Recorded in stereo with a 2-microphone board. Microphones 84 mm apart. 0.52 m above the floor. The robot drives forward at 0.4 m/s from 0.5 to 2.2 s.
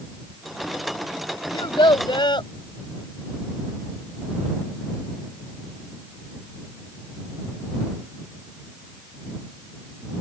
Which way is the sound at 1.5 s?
75° left (ahead or behind).